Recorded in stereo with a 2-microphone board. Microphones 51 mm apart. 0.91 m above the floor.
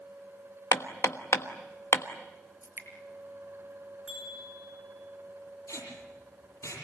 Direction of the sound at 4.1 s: 15° right (ahead or behind).